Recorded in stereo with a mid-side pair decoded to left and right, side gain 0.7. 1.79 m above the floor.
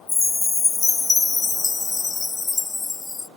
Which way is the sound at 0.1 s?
20° left.